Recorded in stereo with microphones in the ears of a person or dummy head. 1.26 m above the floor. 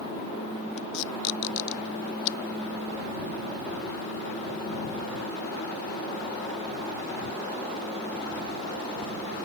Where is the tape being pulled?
70° left (ahead or behind).